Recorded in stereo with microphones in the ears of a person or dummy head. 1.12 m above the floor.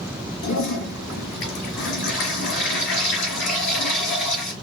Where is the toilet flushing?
60° left (ahead or behind), 4 m.